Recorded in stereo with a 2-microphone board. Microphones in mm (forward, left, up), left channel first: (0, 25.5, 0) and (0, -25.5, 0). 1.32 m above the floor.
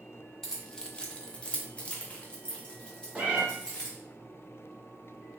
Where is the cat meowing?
25° right (ahead or behind), 0.8 m.